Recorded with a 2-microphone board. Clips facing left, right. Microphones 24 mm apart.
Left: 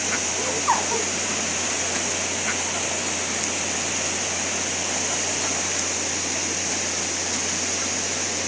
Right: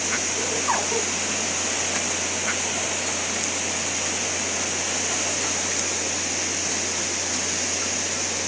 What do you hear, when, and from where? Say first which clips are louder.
0.3 s laughter: left 4 dB; 15° left (ahead or behind), 9.5 m